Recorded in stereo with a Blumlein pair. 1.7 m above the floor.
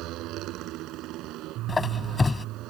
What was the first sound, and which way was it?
A motorcycle, 35° right.